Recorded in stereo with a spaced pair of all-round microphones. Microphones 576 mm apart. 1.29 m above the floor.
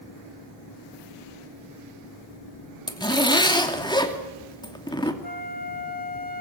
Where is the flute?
15° left (ahead or behind), 2 m.